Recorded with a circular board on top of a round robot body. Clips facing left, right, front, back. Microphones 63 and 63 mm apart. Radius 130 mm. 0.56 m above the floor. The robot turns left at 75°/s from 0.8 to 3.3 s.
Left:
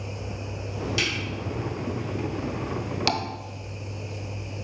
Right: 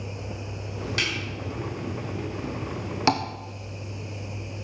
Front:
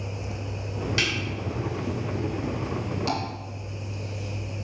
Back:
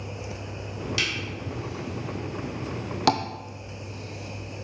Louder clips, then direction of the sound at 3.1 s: Right 5 dB, back 8 dB; 155° right.